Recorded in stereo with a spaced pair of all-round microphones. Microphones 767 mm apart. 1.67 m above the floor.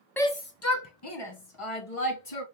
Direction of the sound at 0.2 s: 5° left (ahead or behind).